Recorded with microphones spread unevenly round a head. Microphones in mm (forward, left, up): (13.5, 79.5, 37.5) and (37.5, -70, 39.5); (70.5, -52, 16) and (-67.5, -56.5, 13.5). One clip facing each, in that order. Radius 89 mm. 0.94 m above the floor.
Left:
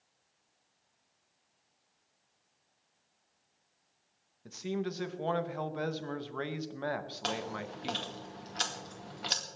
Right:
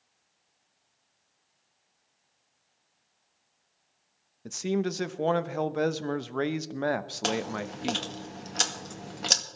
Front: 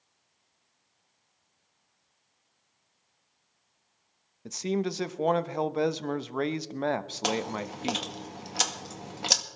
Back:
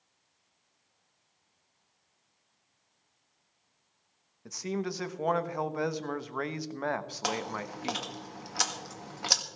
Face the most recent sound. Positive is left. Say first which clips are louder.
# right 7 dB, front 4 dB
turn(degrees=-60)